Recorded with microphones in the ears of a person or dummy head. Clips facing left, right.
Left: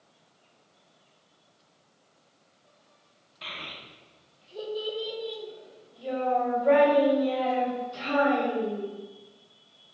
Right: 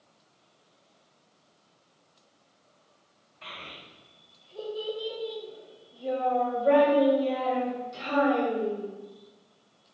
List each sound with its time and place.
3.4 s a child speaking: 55° left (ahead or behind), 0.9 m; by 8.8 s 20° right (ahead or behind), 2.5 m